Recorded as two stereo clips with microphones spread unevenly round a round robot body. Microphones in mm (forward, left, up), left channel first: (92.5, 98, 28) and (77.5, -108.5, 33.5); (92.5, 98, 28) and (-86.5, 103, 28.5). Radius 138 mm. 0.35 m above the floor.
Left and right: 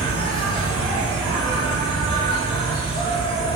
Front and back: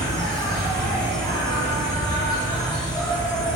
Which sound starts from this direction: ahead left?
An insect, at 0.0 s.